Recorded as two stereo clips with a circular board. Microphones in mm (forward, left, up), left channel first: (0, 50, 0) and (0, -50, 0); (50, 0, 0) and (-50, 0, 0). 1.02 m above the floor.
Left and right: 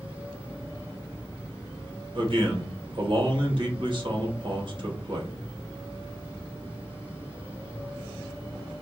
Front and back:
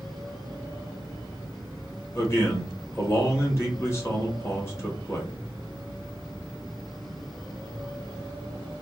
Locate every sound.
2.1 s a man speaking: 60° right, 1.4 m